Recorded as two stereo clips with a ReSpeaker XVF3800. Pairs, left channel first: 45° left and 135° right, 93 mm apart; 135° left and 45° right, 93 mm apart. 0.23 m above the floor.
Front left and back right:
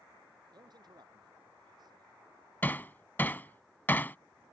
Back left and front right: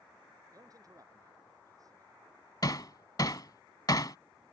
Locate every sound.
0.5 s a man speaking: 95° right
2.6 s hammering: 110° left